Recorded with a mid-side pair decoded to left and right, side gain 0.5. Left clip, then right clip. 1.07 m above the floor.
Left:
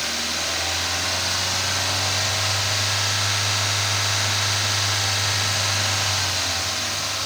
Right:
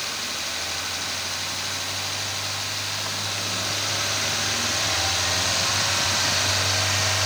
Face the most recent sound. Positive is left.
No sound to turn to.